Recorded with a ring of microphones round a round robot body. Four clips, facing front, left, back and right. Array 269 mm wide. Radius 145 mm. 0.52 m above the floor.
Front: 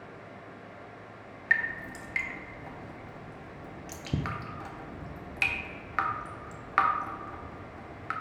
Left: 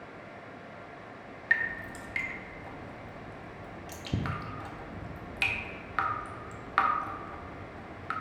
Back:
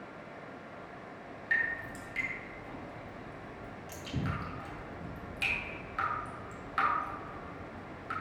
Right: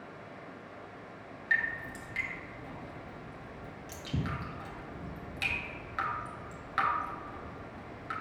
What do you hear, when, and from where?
1.5 s dripping: 35° left, 1.0 m